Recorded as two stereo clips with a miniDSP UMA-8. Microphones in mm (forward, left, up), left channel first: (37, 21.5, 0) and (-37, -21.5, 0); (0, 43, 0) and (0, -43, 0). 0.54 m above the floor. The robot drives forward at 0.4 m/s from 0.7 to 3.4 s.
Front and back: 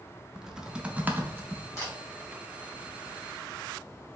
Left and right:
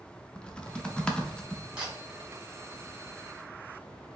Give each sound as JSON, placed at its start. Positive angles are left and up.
{"t": 0.3, "sound": "typing on a keyboard", "azimuth_deg": 145, "distance_m": 0.5}
{"t": 1.8, "sound": "a camera shutter", "azimuth_deg": -20, "distance_m": 2.0}